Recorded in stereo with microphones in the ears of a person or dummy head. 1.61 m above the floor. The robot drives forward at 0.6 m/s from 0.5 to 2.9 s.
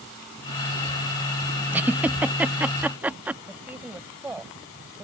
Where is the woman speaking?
10° right (ahead or behind).